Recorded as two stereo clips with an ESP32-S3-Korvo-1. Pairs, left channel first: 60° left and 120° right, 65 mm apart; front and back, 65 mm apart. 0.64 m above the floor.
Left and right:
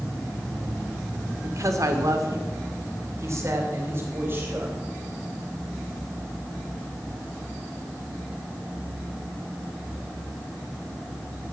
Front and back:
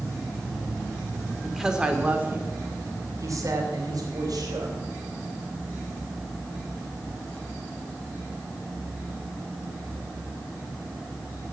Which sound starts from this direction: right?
A woman speaking, at 1.4 s.